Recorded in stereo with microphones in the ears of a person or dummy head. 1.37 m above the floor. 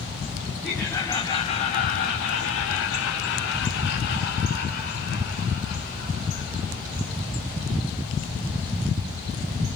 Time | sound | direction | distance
0.6 | laughter | 5° left (ahead or behind) | 2 m